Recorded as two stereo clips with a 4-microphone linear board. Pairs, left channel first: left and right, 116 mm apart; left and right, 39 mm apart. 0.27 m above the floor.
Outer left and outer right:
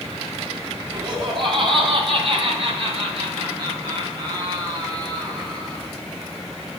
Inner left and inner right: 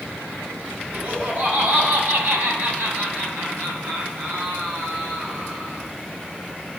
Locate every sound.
0.9 s laughter: 40° right (ahead or behind), 2.5 m; by 5.8 s 35° right (ahead or behind), 4.5 m